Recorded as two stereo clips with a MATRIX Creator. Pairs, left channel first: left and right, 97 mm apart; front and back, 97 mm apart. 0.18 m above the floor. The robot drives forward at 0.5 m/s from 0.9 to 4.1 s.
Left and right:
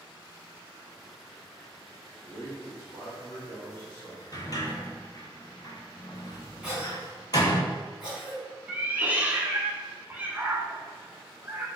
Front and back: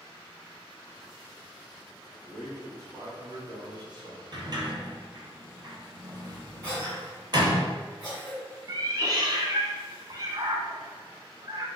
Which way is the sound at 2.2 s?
130° left.